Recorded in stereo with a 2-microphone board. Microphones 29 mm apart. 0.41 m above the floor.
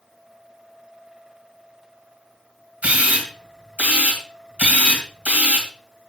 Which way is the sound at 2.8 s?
50° right (ahead or behind).